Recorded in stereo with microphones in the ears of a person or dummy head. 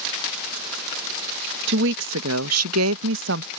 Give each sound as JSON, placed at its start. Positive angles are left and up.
{"t": 1.7, "sound": "a woman speaking", "side_deg": -70}